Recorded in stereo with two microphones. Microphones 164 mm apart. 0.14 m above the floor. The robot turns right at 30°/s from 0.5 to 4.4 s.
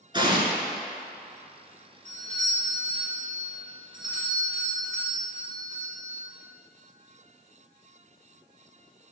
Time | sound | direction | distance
0.1 | an explosion | 30° right (ahead or behind) | 1.5 m
2.0 | a doorbell | 95° right | 3 m